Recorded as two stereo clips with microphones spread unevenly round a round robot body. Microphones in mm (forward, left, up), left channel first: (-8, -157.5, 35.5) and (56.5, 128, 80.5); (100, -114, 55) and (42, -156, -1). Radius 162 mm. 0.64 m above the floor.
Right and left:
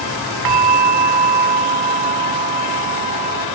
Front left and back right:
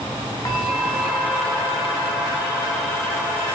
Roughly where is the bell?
Left.